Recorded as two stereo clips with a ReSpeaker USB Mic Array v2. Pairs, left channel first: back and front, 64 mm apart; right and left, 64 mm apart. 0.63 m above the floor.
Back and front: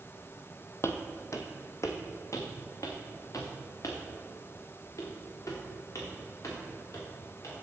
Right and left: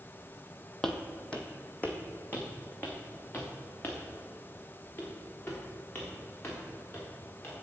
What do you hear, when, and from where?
0.8 s footsteps: 170° right, 0.8 m; by 7.5 s 145° right, 5 m